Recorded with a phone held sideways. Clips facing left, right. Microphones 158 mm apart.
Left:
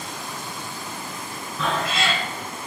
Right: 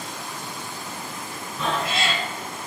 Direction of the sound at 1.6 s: 25° right (ahead or behind).